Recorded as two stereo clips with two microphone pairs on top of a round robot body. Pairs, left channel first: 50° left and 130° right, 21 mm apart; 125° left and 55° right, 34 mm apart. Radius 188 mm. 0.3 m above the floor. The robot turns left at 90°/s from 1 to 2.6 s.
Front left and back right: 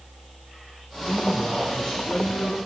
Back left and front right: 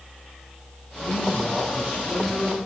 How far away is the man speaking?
About 5 m.